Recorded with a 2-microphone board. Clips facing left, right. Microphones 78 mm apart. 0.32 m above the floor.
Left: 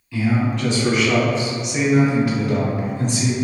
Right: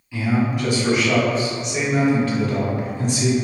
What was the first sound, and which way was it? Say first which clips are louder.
A man speaking: left 1 dB; 10° right (ahead or behind).